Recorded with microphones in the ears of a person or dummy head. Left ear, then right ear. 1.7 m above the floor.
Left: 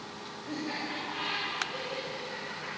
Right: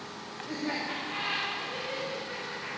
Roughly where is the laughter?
Right.